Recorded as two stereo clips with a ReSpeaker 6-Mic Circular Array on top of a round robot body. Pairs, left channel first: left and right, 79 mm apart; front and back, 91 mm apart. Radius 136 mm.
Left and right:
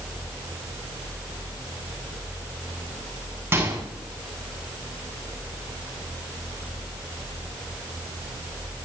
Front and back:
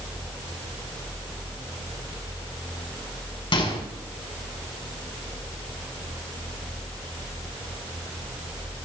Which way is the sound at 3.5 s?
25° right.